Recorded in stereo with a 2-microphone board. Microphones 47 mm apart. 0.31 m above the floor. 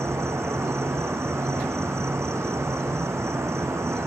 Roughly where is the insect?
Right.